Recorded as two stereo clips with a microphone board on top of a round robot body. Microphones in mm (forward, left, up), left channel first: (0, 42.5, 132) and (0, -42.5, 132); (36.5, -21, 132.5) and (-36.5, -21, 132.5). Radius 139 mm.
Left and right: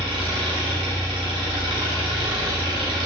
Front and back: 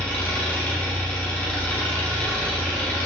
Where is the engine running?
70° right, 3 m.